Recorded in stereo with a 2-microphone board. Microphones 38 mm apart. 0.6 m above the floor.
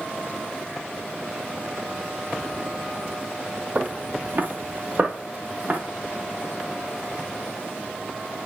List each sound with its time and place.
3.8 s footsteps: 40° right (ahead or behind), 0.9 m